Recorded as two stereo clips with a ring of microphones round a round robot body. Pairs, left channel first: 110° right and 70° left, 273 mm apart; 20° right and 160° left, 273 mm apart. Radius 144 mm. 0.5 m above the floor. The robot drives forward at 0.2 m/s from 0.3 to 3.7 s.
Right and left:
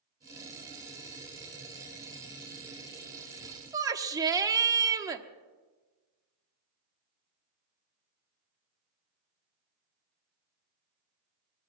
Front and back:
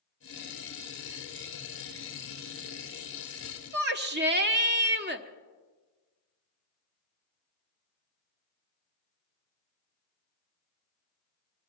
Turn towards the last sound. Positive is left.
turn(degrees=140)